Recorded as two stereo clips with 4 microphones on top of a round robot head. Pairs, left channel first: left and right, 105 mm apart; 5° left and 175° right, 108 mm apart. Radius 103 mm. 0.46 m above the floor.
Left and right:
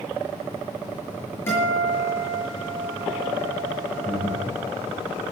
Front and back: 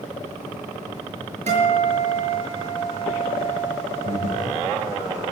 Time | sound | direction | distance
1.5 | a guitar | 165° left | 6.5 m
4.0 | breathing | 165° left | 3 m